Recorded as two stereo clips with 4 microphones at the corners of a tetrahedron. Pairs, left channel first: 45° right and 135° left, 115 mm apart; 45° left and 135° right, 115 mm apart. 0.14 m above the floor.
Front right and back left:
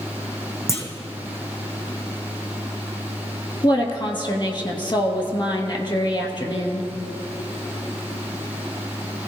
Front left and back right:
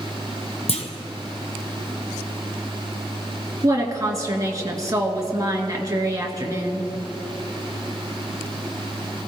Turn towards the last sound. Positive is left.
turn(degrees=-80)